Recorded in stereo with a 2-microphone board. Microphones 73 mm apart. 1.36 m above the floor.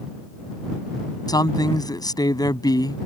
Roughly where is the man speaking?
Left.